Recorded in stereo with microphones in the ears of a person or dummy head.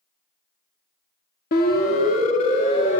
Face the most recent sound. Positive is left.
turn(degrees=40)  # may be behind; listen again after turning